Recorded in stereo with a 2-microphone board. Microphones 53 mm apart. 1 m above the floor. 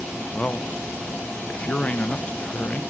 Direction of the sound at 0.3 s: 30° left (ahead or behind).